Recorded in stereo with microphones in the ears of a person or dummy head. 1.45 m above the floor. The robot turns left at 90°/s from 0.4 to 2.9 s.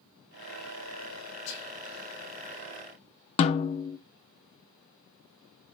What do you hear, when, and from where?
1.5 s whispering: 70° left (ahead or behind), 1.7 m; by 1.7 s 85° left, 1.7 m
3.4 s a snare drum: 35° left (ahead or behind), 0.6 m